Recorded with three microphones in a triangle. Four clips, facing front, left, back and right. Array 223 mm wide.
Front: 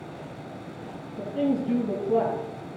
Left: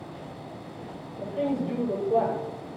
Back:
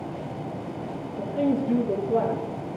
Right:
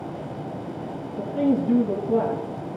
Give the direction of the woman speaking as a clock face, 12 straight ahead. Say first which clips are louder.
Right 6 dB, back 1 dB; 2 o'clock.